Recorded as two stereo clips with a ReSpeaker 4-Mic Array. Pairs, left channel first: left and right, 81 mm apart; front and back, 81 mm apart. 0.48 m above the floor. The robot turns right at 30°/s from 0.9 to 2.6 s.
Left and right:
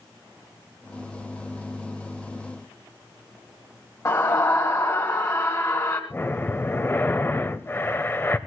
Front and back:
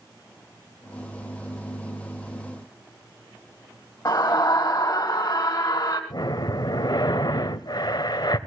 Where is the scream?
45° left, 2.0 m.